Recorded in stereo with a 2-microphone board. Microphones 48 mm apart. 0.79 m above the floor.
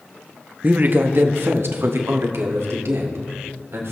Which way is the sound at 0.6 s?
35° right (ahead or behind).